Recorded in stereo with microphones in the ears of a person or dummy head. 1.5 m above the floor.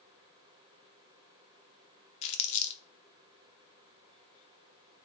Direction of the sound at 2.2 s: 35° left (ahead or behind).